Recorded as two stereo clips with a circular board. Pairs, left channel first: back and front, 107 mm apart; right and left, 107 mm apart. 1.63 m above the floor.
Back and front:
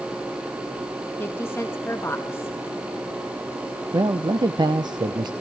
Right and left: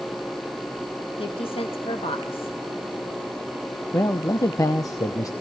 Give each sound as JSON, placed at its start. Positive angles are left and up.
{"t": 1.2, "sound": "a woman speaking", "azimuth_deg": -115, "distance_m": 2.0}
{"t": 3.9, "sound": "a man speaking", "azimuth_deg": -40, "distance_m": 0.9}